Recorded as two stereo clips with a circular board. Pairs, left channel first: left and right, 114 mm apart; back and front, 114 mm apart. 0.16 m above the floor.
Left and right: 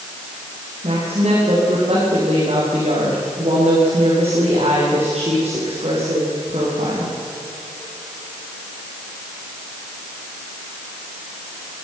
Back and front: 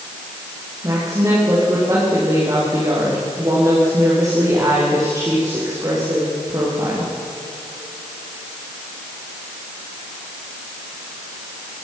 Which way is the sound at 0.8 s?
60° right.